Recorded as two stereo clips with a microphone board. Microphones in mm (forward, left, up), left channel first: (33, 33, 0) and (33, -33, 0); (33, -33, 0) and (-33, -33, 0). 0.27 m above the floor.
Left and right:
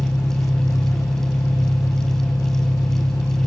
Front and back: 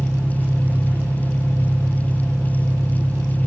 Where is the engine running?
115° left, 1.0 m.